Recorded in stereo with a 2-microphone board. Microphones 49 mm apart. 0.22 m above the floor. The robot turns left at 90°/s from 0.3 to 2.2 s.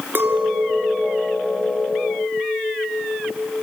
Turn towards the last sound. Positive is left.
turn(degrees=55)